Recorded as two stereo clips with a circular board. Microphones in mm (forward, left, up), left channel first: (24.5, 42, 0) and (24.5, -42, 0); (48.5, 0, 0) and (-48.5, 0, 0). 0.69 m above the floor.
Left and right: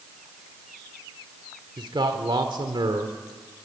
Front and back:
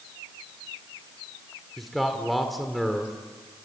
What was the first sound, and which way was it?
A man speaking, 90° right.